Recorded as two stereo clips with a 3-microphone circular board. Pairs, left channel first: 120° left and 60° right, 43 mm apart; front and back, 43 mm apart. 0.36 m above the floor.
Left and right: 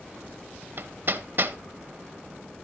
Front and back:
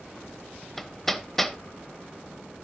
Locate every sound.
0.8 s hammering: 85° right, 0.8 m